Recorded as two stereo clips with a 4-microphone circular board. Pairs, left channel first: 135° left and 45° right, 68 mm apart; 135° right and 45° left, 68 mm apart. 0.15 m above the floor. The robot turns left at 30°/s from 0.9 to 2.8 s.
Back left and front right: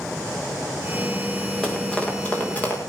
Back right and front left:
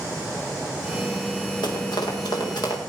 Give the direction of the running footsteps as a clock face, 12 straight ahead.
5 o'clock.